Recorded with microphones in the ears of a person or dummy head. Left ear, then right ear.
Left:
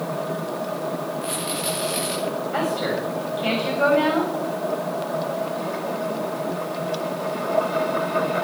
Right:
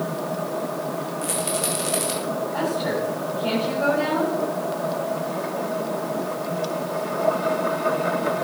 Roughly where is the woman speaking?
Left.